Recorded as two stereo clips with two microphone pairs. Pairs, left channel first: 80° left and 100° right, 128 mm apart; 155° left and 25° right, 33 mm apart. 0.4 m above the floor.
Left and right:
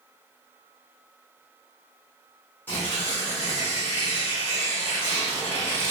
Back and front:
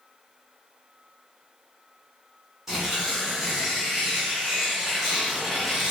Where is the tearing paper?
40° left, 1.3 m.